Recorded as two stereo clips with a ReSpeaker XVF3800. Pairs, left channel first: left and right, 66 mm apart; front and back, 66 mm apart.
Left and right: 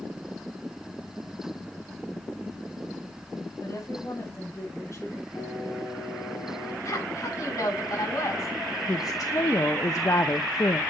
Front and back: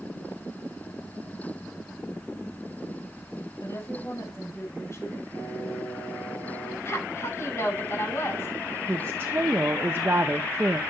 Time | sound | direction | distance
3.6 | a woman speaking | 50° left | 5.5 m
5.3 | singing | 55° left | 5 m
6.8 | a woman speaking | 55° left | 7 m
8.9 | a woman speaking | 125° left | 0.8 m